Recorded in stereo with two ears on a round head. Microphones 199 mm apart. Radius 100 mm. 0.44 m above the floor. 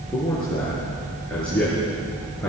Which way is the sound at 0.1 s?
5° left (ahead or behind).